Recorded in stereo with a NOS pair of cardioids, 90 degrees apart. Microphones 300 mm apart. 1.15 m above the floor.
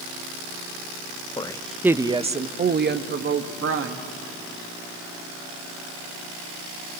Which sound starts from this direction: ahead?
A woman speaking, at 1.4 s.